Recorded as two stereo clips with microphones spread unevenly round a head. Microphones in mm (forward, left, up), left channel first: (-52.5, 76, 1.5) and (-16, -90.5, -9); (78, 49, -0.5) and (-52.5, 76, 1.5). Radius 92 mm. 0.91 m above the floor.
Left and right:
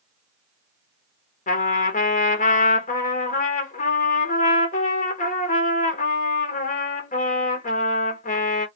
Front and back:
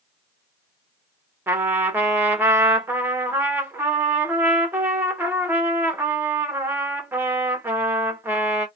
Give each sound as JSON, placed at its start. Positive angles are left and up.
{"t": 1.5, "sound": "a trumpet", "azimuth_deg": 100, "distance_m": 1.0}